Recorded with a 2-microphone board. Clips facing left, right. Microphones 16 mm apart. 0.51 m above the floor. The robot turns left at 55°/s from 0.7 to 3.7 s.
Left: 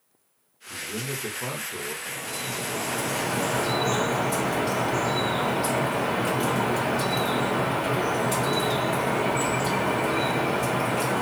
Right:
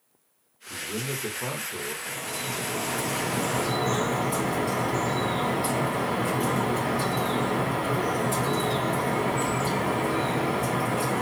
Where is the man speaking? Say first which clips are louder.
Even; 130° right, 1.1 m; by 1.9 s 165° left, 1.1 m.